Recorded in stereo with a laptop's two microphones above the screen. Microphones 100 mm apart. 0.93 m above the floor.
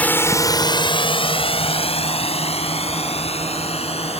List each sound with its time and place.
0.0 s a drone: 15° left (ahead or behind); by 4.2 s 85° left